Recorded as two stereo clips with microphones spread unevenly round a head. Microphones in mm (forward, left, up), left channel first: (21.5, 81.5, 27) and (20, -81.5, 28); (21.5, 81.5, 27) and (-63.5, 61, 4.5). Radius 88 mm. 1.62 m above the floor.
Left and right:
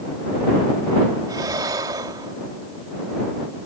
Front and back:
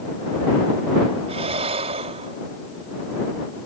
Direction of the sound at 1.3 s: 160° right.